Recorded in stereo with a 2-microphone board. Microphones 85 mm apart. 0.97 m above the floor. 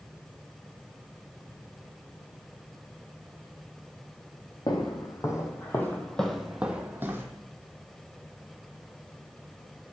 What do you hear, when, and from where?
4.7 s footsteps: 50° left (ahead or behind), 2.0 m; by 7.3 s 30° right (ahead or behind), 1.6 m